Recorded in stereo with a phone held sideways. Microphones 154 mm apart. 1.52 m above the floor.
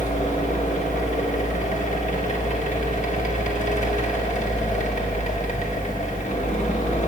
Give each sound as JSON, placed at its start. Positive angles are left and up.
{"t": 0.0, "sound": "a fan", "side_deg": 50, "distance_m": 1.4}